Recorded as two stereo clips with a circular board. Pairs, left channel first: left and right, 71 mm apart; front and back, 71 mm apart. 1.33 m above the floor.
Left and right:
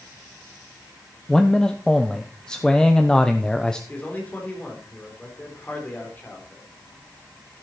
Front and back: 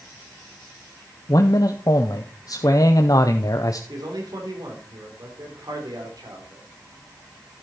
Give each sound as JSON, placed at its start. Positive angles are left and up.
{"t": 1.3, "sound": "a man speaking", "azimuth_deg": 10, "distance_m": 0.7}
{"t": 3.9, "sound": "a man speaking", "azimuth_deg": 155, "distance_m": 3.5}